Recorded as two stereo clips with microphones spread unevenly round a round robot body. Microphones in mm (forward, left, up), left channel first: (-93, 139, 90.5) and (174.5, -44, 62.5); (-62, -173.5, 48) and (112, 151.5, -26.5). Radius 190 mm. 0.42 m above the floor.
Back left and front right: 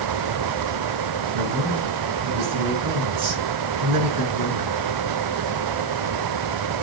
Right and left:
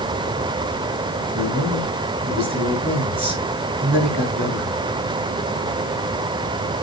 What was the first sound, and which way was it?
A man speaking, 10° right.